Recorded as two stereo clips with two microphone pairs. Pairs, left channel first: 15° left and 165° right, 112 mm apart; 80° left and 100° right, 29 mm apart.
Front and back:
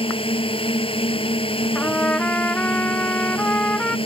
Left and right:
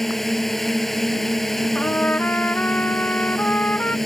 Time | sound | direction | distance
0.0 | a drone | straight ahead | ?
1.8 | a trumpet | 90° left | ?